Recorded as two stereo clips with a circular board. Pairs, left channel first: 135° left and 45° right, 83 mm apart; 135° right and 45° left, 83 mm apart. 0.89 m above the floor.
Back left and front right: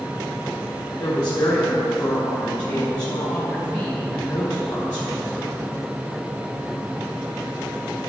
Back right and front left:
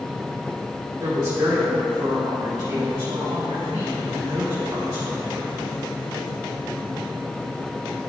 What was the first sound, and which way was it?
A woman speaking, 90° left.